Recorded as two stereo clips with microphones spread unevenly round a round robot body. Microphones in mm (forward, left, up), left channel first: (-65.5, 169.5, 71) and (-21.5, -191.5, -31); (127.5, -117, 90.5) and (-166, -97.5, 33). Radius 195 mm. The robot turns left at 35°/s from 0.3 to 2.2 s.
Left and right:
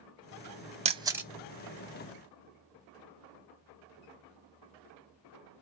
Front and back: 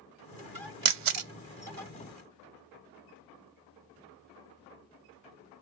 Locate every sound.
0.8 s a camera shutter: 150° right, 0.6 m; by 1.3 s 165° right, 0.6 m